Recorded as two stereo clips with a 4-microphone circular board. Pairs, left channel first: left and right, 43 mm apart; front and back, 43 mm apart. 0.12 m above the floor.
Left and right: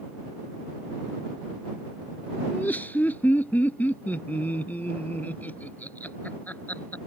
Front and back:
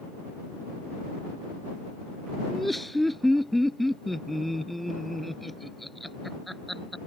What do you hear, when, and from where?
2.5 s laughter: 85° left